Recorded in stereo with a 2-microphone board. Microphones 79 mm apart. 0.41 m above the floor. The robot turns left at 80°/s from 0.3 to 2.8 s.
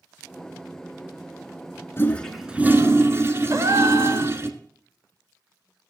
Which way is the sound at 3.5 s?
40° right (ahead or behind).